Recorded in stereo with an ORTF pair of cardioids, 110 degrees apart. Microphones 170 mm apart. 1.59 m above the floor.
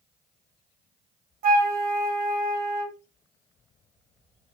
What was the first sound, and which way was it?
A flute, 60° right.